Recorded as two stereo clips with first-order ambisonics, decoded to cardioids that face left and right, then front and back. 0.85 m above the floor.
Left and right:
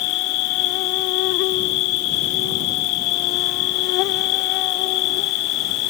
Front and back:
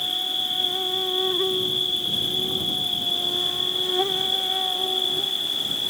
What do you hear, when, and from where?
0.0 s an insect: 85° left